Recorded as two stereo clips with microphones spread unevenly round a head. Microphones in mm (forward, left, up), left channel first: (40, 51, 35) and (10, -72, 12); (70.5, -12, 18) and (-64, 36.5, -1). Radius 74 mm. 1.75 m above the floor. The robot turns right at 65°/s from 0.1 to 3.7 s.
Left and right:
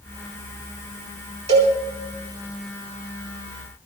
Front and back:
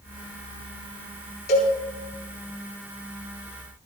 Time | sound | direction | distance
1.5 | a cowbell | 70° right | 8.5 m